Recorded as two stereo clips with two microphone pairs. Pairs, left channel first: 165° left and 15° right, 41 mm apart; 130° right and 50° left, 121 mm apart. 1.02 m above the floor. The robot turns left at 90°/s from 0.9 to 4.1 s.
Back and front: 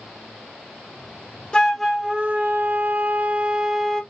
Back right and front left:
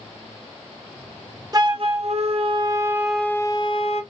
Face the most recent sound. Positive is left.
turn(degrees=-130)